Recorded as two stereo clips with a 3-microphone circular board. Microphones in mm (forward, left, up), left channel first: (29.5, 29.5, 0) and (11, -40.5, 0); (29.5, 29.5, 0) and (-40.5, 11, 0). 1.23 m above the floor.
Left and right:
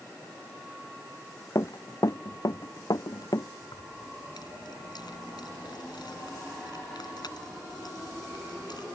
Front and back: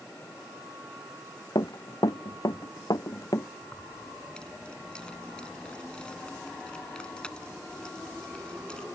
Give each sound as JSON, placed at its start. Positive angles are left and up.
{"t": 1.6, "sound": "running footsteps", "azimuth_deg": 35}
{"t": 3.6, "sound": "keys jangling", "azimuth_deg": 95}